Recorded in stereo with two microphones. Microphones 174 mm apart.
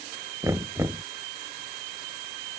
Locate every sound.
0.4 s knocking: 15° right (ahead or behind)